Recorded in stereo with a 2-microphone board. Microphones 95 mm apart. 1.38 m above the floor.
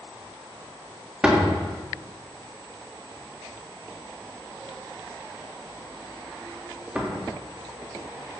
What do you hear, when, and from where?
1.2 s a door slam: 10° right (ahead or behind), 1.9 m